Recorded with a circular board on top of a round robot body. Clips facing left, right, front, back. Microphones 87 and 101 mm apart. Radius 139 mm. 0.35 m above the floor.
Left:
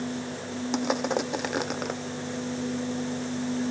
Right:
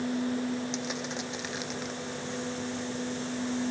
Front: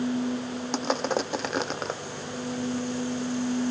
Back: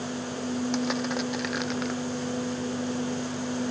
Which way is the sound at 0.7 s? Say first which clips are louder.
Left 8 dB, front 1 dB; 55° left.